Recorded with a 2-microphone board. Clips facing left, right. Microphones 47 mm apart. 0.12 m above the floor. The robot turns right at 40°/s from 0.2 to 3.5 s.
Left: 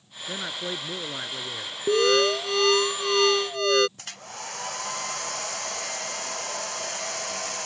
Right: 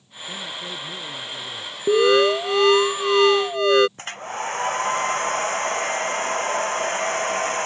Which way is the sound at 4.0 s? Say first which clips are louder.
Right 10 dB; 40° right (ahead or behind).